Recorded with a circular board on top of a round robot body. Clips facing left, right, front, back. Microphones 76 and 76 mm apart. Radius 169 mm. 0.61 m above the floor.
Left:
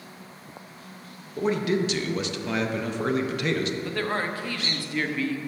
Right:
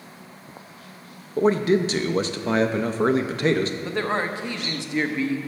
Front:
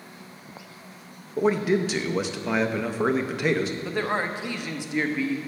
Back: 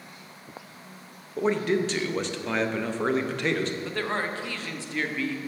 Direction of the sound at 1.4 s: 75° right.